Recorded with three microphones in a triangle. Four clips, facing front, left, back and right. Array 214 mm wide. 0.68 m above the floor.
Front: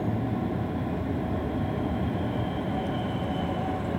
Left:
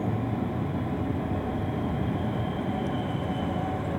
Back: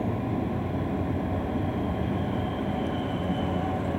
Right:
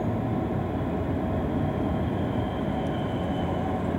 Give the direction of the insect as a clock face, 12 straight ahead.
3 o'clock.